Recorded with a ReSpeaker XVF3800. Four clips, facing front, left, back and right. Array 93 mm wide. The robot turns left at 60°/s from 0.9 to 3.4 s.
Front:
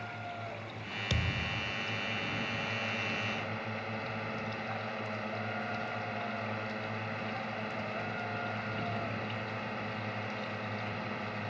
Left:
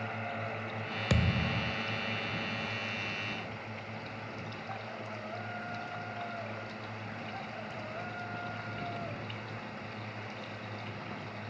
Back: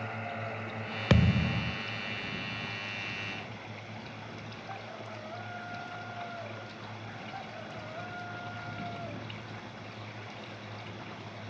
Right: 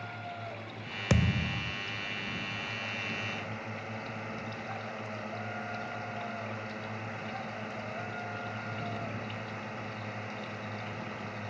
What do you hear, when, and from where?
0.0 s a drone: 130° left; by 11.5 s 20° right
1.1 s a thud: 160° right; by 1.8 s 160° left